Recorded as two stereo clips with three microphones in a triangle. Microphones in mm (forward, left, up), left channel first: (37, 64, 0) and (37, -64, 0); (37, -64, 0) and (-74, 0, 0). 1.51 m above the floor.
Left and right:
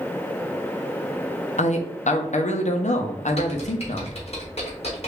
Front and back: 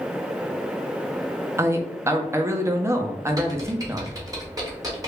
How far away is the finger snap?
I don't hear a finger snap.